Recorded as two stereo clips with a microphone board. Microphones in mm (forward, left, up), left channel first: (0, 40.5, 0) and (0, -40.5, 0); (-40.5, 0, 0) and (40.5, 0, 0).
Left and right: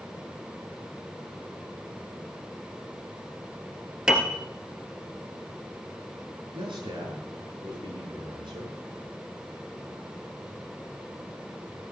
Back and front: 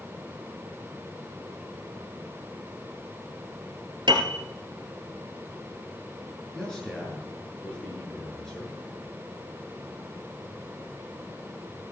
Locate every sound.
4.1 s a piano: 10° right, 1.9 m
6.5 s a man speaking: 95° right, 8 m